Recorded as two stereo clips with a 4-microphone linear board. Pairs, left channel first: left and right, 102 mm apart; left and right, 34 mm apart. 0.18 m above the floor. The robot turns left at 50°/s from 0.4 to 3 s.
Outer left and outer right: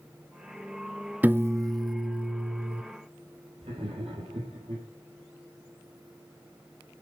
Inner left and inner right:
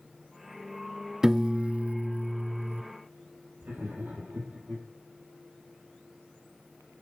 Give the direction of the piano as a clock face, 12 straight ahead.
1 o'clock.